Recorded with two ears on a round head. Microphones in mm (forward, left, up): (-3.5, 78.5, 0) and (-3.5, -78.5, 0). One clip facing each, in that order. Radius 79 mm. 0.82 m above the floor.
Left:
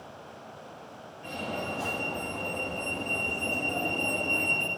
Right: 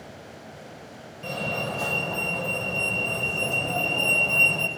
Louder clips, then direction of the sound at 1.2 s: Right 4 dB; 75° right (ahead or behind).